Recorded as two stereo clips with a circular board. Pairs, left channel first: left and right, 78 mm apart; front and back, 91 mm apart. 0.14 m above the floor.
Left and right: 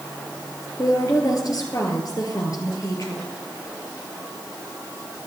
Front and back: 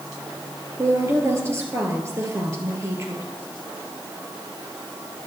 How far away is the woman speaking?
About 2.5 m.